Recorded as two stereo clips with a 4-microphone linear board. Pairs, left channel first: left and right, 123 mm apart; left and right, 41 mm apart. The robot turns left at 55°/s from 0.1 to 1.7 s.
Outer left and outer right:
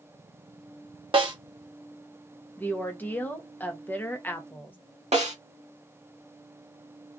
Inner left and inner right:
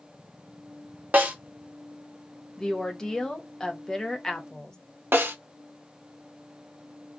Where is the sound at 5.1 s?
65° right (ahead or behind), 1.2 m.